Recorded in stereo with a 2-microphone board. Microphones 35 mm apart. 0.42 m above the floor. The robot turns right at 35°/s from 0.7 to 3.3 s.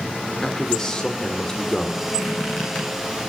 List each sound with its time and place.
0.4 s a man speaking: 20° left (ahead or behind), 1.2 m; by 2.0 s 15° left (ahead or behind), 1.2 m
2.1 s a squeak: 25° left (ahead or behind), 7 m; by 2.9 s 55° left (ahead or behind), 7 m